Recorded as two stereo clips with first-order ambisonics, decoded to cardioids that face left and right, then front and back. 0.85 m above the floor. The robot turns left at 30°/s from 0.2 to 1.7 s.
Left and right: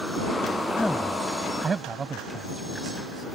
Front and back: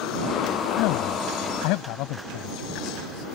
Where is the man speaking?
10° left; by 3.2 s 20° right.